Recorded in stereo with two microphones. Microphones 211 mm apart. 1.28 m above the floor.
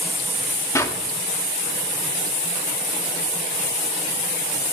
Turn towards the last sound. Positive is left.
turn(degrees=15)  # may be behind; listen again after turning